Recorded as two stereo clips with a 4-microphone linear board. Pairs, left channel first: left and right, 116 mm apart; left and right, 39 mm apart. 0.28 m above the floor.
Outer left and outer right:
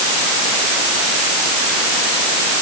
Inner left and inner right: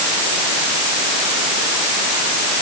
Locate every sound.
Only background noise.